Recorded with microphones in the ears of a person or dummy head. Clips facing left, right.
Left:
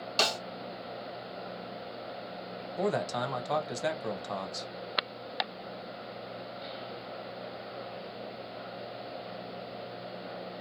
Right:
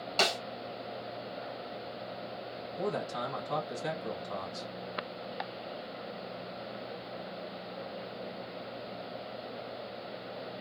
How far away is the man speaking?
About 1.1 m.